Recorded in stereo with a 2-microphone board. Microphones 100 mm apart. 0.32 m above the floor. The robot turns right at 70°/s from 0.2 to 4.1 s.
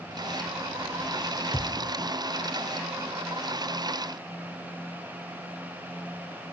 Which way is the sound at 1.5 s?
10° right (ahead or behind).